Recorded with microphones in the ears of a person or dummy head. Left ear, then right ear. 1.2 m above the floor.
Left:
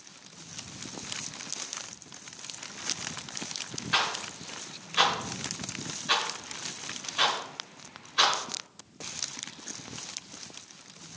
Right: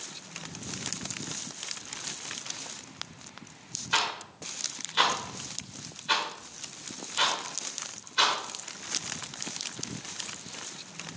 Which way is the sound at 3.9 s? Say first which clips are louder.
Left 1 dB; 10° right (ahead or behind).